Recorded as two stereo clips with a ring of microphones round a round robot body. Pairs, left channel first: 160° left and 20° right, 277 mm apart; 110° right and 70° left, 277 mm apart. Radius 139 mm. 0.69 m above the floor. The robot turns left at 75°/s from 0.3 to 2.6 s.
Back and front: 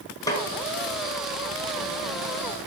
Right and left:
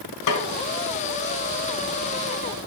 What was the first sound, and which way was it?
A snare drum, 125° right.